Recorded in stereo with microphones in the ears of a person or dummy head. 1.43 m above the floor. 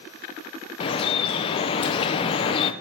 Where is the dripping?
30° left (ahead or behind), 0.6 m.